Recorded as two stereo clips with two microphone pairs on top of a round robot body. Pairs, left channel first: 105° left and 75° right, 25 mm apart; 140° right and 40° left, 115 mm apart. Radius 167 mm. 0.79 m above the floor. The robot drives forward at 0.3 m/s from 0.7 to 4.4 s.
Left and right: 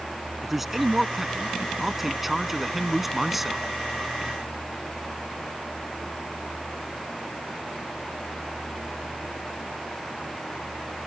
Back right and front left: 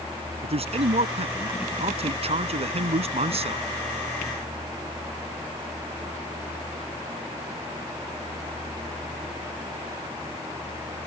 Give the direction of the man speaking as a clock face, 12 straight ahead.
12 o'clock.